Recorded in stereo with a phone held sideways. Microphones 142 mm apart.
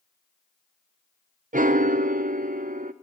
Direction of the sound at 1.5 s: 70° right (ahead or behind).